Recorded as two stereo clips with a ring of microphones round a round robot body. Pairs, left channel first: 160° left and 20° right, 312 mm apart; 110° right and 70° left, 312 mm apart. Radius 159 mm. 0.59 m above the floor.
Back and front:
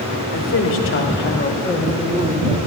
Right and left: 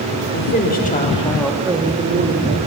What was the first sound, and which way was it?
A woman speaking, 165° right.